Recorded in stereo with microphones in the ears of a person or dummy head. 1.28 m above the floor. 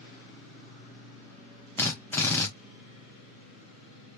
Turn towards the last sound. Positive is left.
turn(degrees=10)  # may be behind; listen again after turning